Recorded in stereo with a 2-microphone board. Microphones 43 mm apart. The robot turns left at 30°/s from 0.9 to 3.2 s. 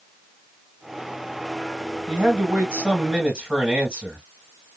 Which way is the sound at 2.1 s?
105° right.